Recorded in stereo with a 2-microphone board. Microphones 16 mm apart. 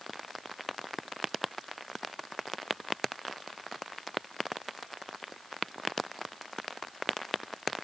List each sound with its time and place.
Only background noise.